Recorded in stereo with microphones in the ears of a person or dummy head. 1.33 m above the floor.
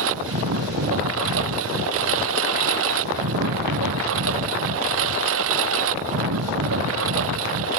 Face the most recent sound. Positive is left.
turn(degrees=-75)  # may be behind; listen again after turning